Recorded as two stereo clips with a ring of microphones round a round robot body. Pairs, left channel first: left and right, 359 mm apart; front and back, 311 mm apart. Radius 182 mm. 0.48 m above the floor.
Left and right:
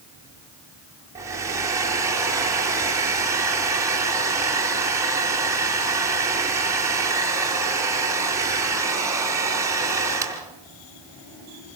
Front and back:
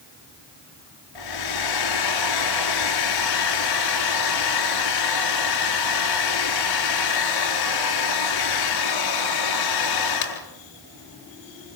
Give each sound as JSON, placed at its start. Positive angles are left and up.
{"t": 1.1, "sound": "a hair dryer", "azimuth_deg": -10, "distance_m": 4.0}